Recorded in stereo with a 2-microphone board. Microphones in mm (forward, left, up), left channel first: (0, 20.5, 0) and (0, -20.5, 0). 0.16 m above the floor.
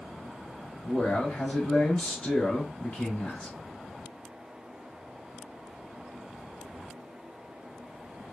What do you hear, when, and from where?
0.8 s a man speaking: 30° left (ahead or behind), 1.8 m